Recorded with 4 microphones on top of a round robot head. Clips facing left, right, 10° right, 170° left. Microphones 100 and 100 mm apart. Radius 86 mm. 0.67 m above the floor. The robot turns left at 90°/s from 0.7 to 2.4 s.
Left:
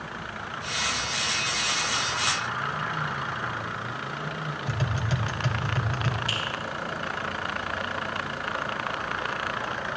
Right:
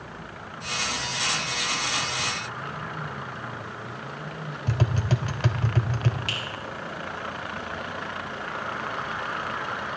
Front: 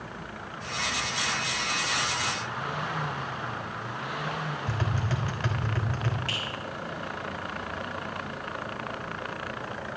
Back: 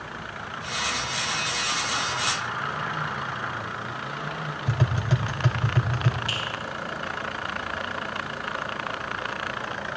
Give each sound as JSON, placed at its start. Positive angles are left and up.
{"t": 4.7, "sound": "tapping", "azimuth_deg": -115, "distance_m": 1.5}
{"t": 6.3, "sound": "a finger snap", "azimuth_deg": -110, "distance_m": 6.0}